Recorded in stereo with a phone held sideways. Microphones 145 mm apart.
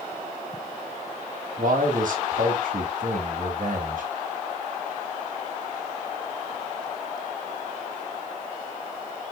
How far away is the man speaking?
About 1.8 m.